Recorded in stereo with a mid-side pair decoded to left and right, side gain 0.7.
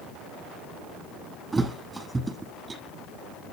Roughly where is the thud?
Ahead.